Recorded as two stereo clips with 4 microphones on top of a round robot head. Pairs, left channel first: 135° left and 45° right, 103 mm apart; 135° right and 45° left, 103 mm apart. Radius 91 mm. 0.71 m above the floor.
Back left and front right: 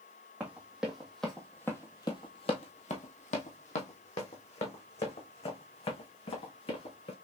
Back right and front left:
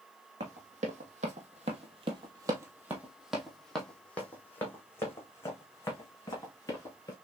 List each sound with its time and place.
0.4 s running footsteps: 30° left, 1.5 m; by 7.1 s 165° left, 3 m